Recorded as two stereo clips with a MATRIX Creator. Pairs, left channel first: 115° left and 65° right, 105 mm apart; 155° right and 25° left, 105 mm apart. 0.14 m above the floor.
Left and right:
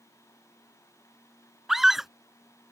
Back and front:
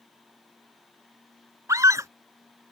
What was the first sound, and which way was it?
A scream, 15° left.